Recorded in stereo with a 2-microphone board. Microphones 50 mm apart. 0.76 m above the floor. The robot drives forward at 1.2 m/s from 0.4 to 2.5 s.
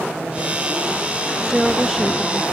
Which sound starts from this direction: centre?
A woman speaking, at 1.5 s.